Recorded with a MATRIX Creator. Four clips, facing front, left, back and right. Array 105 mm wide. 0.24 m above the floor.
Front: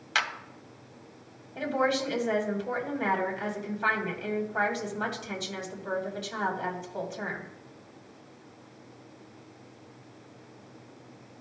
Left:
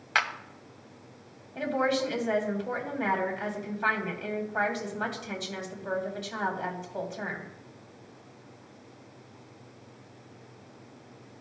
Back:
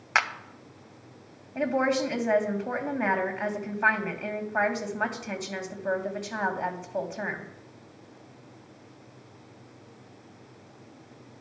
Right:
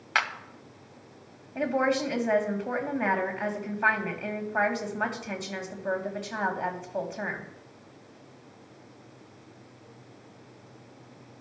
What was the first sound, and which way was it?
A clap, straight behind.